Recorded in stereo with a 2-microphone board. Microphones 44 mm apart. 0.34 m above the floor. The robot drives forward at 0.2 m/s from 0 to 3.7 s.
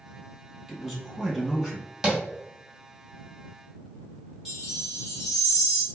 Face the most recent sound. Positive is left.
turn(degrees=-5)  # may be behind; listen again after turning